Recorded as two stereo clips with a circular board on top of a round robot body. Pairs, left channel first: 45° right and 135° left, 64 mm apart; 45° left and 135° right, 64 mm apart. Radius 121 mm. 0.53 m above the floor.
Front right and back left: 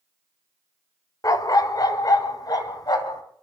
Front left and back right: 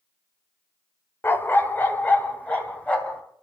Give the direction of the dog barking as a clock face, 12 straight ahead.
12 o'clock.